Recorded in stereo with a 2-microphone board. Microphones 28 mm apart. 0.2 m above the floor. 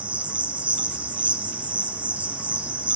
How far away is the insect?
About 1.8 m.